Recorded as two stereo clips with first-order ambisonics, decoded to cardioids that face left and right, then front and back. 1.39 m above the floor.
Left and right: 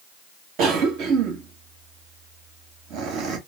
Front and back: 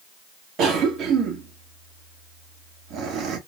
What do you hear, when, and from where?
0.6 s a cough: 130° right, 1.4 m